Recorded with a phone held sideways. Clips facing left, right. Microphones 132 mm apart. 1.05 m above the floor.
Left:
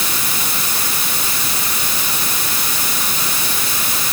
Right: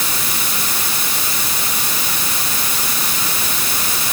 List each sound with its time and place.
Only background noise.